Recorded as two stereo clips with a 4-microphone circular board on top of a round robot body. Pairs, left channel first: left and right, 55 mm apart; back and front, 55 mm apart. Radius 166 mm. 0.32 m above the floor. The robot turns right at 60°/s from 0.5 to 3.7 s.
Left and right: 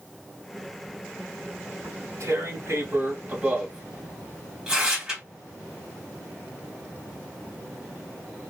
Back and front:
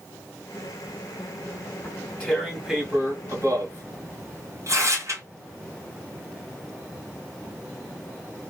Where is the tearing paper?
130° right, 2.5 m; by 5.2 s 20° right, 2.5 m.